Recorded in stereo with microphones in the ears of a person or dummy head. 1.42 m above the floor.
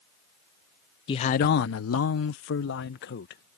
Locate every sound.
1.1 s a man speaking: 25° left (ahead or behind); by 3.6 s 55° left (ahead or behind)